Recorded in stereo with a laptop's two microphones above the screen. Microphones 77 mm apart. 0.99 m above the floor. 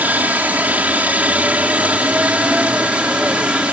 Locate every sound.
0.0 s a helicopter: 25° right (ahead or behind); by 3.7 s 15° right (ahead or behind)